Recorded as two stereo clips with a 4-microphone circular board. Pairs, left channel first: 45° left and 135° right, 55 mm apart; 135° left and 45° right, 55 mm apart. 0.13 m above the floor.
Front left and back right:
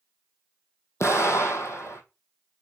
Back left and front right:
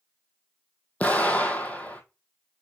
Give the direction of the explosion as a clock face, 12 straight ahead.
10 o'clock.